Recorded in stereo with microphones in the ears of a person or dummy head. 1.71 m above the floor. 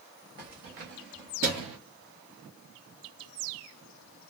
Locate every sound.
0.4 s keys jangling: 45° right (ahead or behind), 1.1 m; by 1.8 s 35° right (ahead or behind), 0.8 m